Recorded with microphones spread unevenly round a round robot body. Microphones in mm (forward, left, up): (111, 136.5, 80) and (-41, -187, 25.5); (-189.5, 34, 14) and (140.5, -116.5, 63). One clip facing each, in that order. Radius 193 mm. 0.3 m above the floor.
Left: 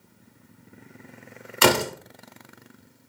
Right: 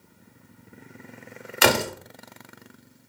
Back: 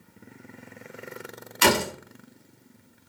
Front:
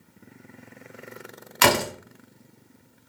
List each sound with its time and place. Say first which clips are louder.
1.6 s a door slam: left 2 dB, even; 25° right, 1.0 m